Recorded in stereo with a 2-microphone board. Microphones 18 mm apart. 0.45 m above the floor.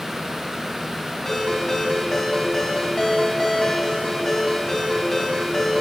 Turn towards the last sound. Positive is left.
turn(degrees=25)  # may be behind; listen again after turning